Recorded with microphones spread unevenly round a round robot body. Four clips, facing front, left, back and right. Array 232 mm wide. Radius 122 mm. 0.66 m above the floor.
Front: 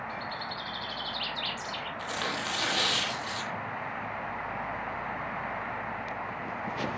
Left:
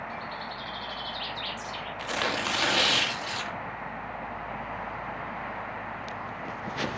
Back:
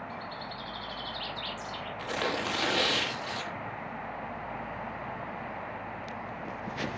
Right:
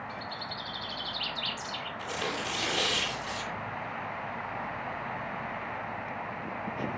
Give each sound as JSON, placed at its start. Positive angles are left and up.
{"t": 0.1, "sound": "a bird", "azimuth_deg": 20, "distance_m": 3.0}
{"t": 2.0, "sound": "tearing paper", "azimuth_deg": 105, "distance_m": 1.5}